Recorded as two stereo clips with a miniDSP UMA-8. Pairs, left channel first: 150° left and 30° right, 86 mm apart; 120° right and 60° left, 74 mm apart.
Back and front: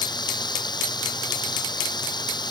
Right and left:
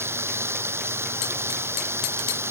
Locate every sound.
0.0 s running water: 115° left